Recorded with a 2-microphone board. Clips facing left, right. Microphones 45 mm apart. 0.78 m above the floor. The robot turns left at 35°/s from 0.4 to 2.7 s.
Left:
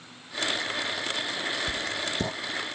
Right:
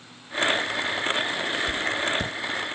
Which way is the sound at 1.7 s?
65° left (ahead or behind).